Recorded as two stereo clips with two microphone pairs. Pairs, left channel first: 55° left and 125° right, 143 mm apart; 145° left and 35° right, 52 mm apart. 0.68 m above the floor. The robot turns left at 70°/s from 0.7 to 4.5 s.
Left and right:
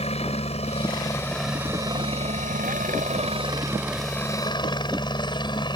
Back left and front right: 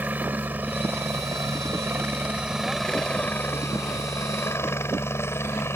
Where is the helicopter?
20° left; by 5.8 s 110° left.